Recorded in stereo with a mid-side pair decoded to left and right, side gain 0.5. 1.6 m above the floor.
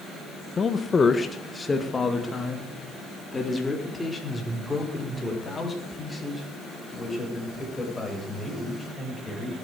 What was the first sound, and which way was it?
A man speaking, 35° left.